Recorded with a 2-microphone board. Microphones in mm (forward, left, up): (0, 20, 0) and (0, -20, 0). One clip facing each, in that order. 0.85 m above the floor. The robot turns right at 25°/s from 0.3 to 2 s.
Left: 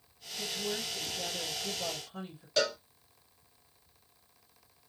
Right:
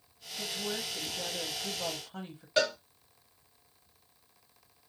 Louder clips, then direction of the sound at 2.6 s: Right 2 dB; 25° right (ahead or behind).